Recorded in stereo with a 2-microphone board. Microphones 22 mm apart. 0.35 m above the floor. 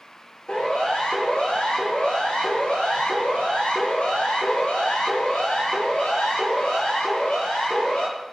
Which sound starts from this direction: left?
A siren, at 0.5 s.